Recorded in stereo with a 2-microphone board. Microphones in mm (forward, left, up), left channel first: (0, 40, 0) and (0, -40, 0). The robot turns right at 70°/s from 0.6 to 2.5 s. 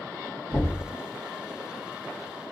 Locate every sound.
0.5 s knocking: 15° left (ahead or behind), 1.7 m; by 0.9 s 5° right (ahead or behind), 1.7 m